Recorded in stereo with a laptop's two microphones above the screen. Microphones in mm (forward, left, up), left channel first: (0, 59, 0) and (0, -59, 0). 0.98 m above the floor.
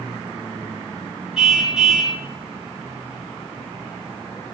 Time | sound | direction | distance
1.4 | a car horn | centre (ahead or behind) | 8.5 m